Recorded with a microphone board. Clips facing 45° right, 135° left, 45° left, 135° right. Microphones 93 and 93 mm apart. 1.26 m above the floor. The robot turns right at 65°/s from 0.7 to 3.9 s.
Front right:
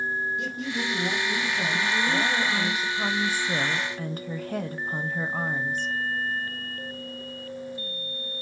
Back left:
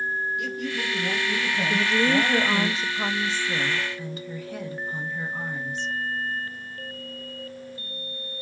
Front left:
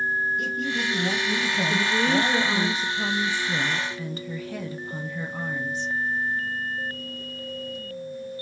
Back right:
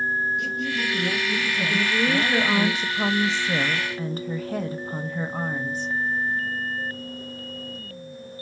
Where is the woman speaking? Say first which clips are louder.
Back left 5 dB, even; 130° left, 0.5 m; by 5.9 s 85° right, 0.5 m.